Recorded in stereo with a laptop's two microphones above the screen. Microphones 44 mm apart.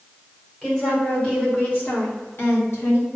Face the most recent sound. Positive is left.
turn(degrees=75)  # may be behind; listen again after turning